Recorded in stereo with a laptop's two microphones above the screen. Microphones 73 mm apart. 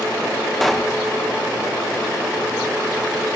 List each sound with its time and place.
0.6 s a pop: centre (ahead or behind), 0.9 m